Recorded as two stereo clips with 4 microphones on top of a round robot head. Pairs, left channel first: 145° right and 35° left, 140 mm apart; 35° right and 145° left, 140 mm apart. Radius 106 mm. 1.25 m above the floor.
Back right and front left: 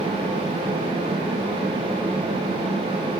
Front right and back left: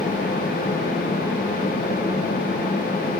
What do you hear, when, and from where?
Only background noise.